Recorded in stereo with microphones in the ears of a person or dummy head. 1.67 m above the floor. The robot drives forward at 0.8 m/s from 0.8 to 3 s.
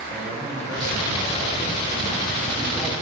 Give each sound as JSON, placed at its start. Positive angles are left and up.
{"t": 0.1, "sound": "a man speaking", "side_deg": 5, "distance_m": 5.5}